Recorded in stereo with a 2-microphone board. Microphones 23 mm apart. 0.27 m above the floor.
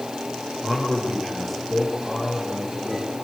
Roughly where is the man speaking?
Centre.